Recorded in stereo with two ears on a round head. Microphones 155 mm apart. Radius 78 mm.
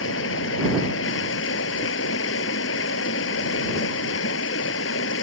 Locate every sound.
0.0 s running water: 75° left (ahead or behind)